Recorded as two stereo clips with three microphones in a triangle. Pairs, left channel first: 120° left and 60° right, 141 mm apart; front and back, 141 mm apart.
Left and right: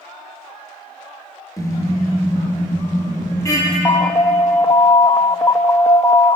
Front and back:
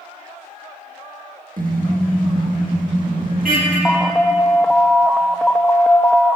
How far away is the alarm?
About 0.7 m.